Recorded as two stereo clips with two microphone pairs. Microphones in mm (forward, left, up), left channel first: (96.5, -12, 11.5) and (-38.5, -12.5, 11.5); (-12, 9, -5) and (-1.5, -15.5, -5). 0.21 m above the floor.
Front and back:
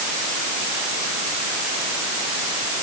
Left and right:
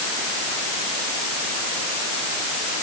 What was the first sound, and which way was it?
Only background noise.